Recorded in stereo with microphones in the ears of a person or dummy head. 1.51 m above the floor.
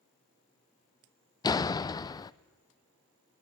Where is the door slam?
20° left (ahead or behind), 0.5 m.